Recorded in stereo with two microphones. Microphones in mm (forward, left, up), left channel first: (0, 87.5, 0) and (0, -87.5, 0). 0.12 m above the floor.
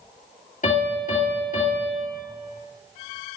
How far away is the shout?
I don't hear a shout.